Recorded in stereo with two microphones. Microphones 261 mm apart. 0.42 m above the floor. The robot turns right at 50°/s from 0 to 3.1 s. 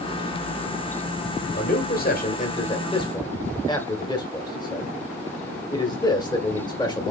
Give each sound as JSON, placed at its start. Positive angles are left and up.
{"t": 1.5, "sound": "a man speaking", "side_deg": 35, "distance_m": 1.6}